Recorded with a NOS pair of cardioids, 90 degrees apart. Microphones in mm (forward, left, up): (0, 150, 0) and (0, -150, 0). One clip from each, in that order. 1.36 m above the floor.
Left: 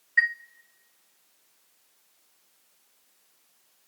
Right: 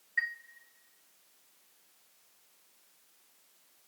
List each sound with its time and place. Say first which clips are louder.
0.2 s a chime: left 10 dB; 35° left, 0.7 m